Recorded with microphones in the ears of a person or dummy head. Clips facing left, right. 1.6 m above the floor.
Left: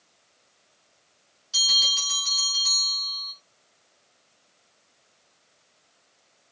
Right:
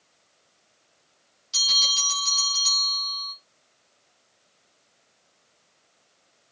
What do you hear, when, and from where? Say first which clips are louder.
1.5 s a bell: right 2 dB; 15° right (ahead or behind), 6.5 m